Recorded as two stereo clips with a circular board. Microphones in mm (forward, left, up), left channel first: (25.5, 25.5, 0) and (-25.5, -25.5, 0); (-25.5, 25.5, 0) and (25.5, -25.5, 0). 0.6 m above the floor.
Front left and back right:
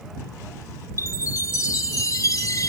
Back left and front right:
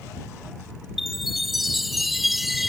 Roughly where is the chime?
Ahead left.